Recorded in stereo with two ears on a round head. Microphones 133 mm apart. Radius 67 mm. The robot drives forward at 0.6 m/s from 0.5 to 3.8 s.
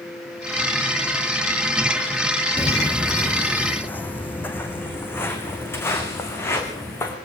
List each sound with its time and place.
2.6 s footsteps: 10° left (ahead or behind), 1.0 m; by 7.2 s 15° left (ahead or behind), 4.5 m